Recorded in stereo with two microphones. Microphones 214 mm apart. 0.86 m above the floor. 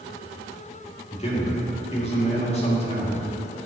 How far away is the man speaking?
About 1.9 m.